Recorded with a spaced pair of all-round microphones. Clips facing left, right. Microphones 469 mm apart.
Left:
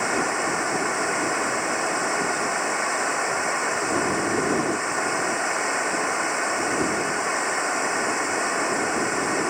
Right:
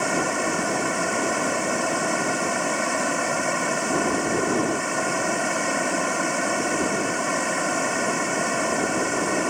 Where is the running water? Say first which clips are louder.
Right 1 dB; 50° right (ahead or behind).